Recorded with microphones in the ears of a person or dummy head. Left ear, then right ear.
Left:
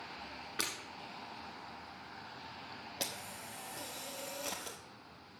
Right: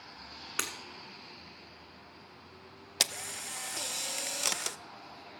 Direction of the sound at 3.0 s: 55° right (ahead or behind).